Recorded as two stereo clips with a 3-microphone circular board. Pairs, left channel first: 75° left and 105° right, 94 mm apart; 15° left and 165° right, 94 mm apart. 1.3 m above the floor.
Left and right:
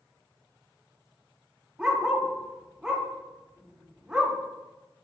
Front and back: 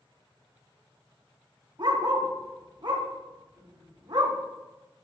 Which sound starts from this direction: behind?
A dog barking, at 1.8 s.